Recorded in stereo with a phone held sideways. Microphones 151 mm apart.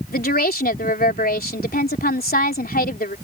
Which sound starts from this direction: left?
A woman speaking, at 0.1 s.